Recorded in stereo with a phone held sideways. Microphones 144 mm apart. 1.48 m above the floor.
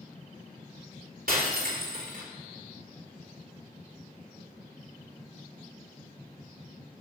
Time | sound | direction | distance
1.3 | breaking glass | 75° right (ahead or behind) | 3 m